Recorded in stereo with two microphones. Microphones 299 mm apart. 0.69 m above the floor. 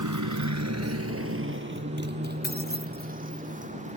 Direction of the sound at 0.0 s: 90° right.